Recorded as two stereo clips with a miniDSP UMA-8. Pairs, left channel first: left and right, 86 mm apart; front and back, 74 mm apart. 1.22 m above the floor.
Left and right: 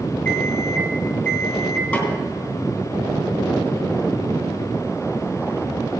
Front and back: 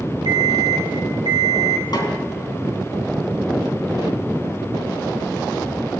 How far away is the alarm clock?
About 3 m.